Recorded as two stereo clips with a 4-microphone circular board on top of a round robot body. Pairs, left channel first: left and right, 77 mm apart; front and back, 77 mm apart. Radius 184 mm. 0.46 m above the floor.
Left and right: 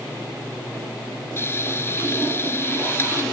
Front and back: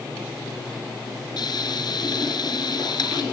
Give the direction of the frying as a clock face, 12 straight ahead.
11 o'clock.